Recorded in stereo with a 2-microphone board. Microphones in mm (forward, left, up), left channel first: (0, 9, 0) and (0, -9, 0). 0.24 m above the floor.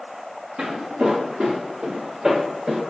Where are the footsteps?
80° right, 1.2 m; by 2.8 s 35° right (ahead or behind), 1.3 m.